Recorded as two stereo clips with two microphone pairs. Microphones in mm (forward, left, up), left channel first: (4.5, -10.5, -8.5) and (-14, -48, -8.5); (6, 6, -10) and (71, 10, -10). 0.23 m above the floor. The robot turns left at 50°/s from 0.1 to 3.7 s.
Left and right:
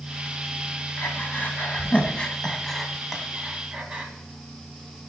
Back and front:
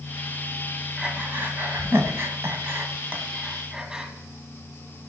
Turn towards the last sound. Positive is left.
turn(degrees=-65)